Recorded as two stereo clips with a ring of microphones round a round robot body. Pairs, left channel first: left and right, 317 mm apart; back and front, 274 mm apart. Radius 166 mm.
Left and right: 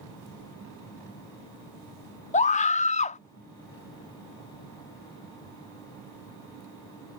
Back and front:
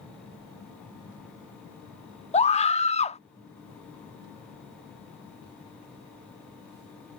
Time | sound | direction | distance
2.3 | a scream | 135° left | ?